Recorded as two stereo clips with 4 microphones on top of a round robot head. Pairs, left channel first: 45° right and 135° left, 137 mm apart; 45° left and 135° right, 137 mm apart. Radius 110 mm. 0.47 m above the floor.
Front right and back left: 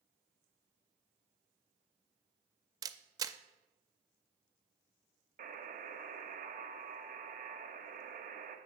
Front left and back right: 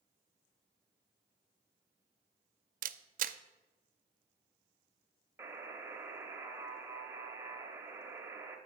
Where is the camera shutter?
160° right, 0.5 m.